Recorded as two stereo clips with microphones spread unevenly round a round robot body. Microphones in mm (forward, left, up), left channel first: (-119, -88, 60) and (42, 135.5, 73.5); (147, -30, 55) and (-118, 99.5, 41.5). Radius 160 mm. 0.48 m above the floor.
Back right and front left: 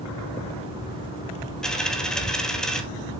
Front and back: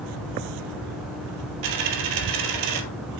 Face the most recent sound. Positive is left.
turn(degrees=145)